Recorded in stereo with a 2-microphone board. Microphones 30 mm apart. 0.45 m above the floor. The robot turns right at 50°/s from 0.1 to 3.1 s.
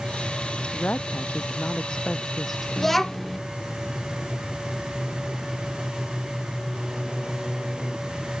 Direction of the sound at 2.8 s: 10° left (ahead or behind).